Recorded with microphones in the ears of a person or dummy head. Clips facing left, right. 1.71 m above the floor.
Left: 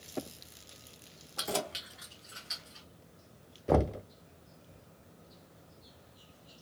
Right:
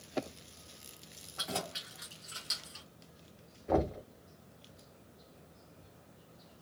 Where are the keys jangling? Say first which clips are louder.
Left 4 dB; 50° left (ahead or behind), 1.2 m; by 2.9 s 55° right (ahead or behind), 1.5 m.